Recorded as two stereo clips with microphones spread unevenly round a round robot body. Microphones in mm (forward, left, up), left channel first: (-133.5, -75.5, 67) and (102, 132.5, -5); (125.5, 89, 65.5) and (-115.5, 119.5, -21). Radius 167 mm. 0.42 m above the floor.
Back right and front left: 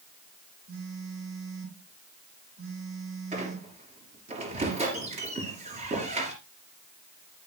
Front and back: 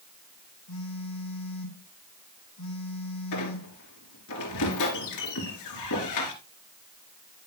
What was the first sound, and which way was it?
A phone buzzing, 5° right.